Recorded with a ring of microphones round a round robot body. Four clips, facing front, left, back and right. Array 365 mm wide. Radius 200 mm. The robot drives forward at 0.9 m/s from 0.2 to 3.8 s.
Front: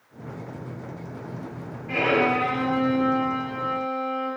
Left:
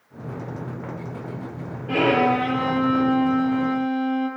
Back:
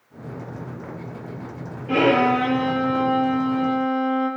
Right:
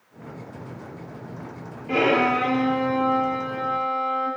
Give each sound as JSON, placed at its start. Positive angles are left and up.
{"t": 1.9, "sound": "a violin", "azimuth_deg": 130, "distance_m": 7.5}